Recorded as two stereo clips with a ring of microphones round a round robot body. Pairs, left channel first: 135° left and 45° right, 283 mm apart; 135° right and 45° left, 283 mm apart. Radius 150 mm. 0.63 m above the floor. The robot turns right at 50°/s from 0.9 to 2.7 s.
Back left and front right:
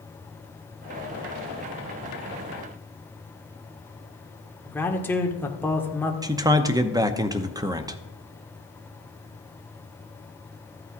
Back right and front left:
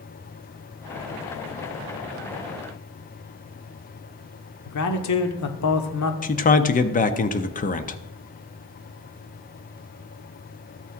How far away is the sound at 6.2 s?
About 0.8 m.